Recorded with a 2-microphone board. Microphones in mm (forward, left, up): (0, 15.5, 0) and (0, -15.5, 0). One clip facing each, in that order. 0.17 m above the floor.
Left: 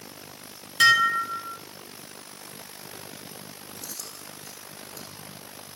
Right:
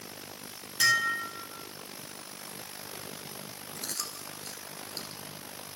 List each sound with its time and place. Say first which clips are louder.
0.8 s dishes clattering: left 7 dB; 55° left (ahead or behind), 1.5 m
3.8 s chewing: right 5 dB; 60° right (ahead or behind), 3 m